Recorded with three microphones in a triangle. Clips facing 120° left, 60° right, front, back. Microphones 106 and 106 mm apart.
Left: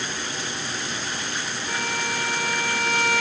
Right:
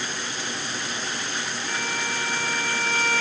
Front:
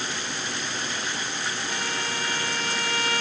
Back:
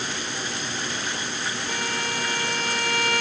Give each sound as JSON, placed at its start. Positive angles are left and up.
{"t": 1.7, "sound": "a violin", "azimuth_deg": -170, "distance_m": 1.5}